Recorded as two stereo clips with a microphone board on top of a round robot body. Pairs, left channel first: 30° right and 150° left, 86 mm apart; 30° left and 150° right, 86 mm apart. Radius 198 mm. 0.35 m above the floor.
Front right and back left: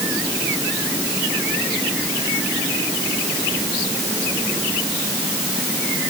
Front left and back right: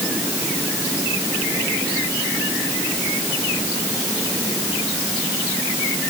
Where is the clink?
No clink in this recording.